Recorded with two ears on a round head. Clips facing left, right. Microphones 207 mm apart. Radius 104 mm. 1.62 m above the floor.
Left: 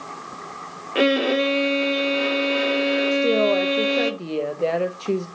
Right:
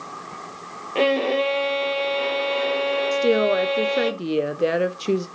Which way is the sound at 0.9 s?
15° left (ahead or behind).